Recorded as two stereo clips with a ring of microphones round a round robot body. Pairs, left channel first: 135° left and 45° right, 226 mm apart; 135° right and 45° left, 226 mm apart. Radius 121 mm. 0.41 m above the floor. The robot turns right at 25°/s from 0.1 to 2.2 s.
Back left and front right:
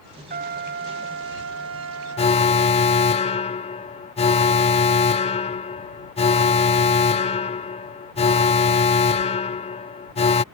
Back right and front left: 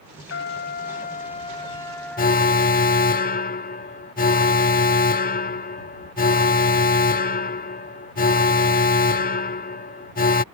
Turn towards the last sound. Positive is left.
turn(degrees=-170)